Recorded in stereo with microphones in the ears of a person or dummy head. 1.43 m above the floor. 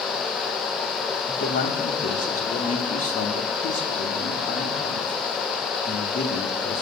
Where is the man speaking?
40° left (ahead or behind), 3.5 m.